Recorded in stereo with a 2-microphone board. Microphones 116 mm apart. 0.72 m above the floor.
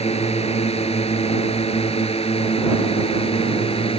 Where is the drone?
70° left (ahead or behind); by 4.0 s 60° left (ahead or behind).